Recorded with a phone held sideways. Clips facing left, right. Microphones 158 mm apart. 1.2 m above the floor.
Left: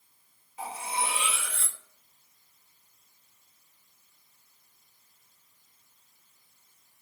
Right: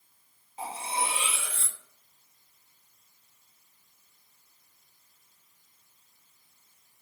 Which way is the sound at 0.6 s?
25° right (ahead or behind).